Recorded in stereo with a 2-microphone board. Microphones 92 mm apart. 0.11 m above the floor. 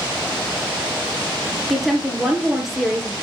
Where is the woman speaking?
Centre (ahead or behind), 2 m.